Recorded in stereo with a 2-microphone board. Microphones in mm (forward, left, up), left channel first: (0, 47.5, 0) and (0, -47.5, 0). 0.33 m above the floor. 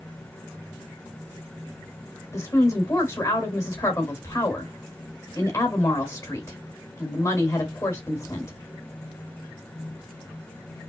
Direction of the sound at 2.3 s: 35° left (ahead or behind).